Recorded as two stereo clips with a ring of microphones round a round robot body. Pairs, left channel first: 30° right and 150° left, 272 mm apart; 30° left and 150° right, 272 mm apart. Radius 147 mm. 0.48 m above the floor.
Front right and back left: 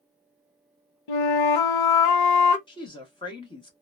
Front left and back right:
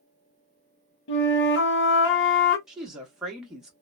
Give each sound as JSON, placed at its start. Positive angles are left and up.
{"t": 1.1, "sound": "a flute", "azimuth_deg": -20, "distance_m": 0.6}
{"t": 2.7, "sound": "a woman speaking", "azimuth_deg": -65, "distance_m": 1.0}